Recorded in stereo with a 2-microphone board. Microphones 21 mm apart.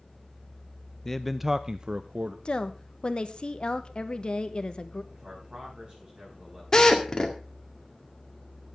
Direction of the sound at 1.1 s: 20° left (ahead or behind).